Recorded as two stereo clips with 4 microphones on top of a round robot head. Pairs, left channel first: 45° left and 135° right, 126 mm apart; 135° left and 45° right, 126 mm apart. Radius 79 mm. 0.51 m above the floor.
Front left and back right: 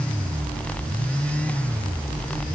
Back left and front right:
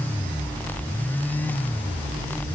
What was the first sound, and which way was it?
Only background noise.